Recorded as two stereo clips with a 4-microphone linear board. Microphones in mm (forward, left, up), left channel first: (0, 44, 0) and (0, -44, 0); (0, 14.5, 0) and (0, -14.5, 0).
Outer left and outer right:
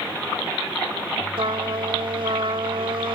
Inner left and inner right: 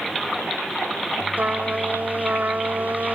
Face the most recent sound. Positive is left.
turn(degrees=-80)